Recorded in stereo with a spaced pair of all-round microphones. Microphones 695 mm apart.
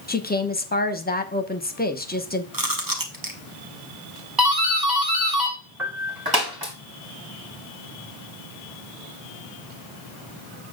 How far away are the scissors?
I don't hear scissors.